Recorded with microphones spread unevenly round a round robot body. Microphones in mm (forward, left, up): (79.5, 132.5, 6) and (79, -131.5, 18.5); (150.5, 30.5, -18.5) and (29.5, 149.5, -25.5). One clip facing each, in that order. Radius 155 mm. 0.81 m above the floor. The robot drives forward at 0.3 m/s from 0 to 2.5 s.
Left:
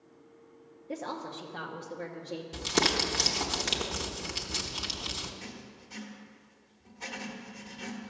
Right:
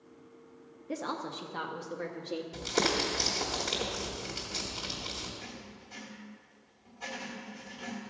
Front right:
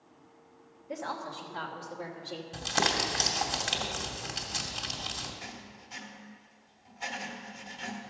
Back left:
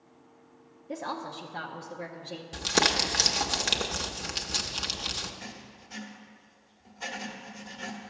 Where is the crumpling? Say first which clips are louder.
Left 1 dB, back left 3 dB; 145° left, 0.8 m.